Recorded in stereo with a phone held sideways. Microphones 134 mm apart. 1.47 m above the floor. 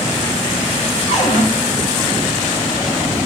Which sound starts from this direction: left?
A cupboard door, at 1.1 s.